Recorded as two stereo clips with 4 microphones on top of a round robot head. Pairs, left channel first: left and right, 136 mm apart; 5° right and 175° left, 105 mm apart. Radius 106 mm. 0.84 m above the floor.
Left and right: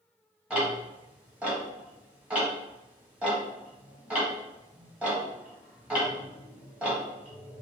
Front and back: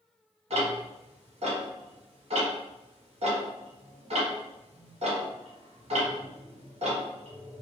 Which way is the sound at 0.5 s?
170° right.